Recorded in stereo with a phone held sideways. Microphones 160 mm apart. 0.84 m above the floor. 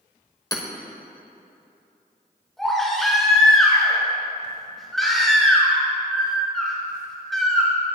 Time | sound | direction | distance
0.5 | hammering | 20° left (ahead or behind) | 1.2 m
2.6 | a baby crying | centre (ahead or behind) | 3 m